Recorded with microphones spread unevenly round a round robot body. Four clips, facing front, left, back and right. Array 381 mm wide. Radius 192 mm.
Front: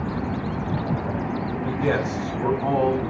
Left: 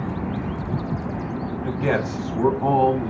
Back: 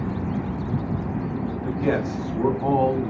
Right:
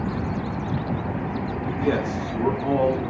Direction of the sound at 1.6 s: 90° left.